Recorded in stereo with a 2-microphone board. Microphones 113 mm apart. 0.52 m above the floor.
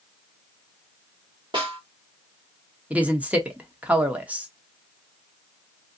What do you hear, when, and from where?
1.5 s a snare drum: 45° right (ahead or behind), 1.5 m
2.9 s a woman speaking: 15° right (ahead or behind), 0.8 m